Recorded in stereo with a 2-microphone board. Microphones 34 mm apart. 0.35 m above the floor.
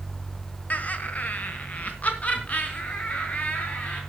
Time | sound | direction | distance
0.7 | laughter | 50° left (ahead or behind) | 1.4 m